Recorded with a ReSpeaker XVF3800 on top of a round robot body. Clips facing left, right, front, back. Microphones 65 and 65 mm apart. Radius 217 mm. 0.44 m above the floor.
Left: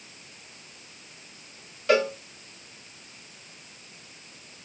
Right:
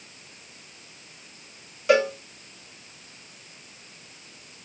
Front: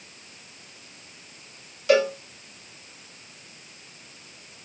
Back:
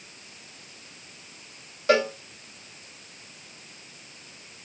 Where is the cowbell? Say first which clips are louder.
Right 2 dB, front 2 dB; 165° right, 1.6 m.